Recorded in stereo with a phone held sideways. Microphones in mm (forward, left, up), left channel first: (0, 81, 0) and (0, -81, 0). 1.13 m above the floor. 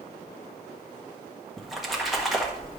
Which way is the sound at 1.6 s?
Centre (ahead or behind).